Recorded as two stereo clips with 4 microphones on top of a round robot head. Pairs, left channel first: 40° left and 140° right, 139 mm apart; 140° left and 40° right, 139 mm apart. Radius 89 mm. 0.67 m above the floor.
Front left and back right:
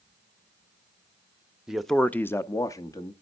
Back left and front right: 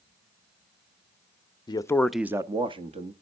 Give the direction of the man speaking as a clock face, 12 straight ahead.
7 o'clock.